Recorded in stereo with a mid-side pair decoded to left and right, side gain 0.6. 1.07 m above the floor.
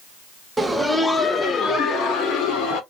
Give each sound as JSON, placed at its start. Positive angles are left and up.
{"t": 0.6, "sound": "laughter", "azimuth_deg": -15, "distance_m": 0.7}